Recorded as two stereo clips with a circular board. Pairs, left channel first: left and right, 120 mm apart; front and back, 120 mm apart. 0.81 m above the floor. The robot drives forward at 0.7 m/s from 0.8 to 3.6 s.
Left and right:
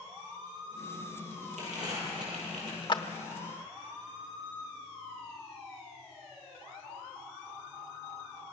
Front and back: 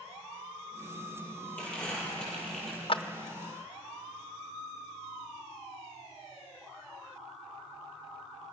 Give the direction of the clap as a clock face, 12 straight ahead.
11 o'clock.